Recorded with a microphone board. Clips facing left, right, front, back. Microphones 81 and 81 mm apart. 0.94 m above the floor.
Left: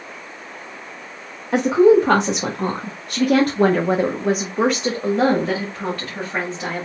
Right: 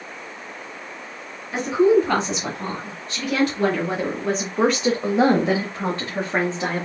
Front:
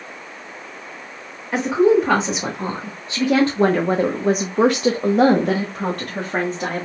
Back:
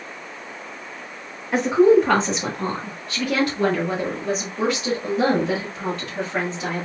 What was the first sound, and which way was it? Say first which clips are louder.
A woman speaking: left 4 dB, back 1 dB; 95° left.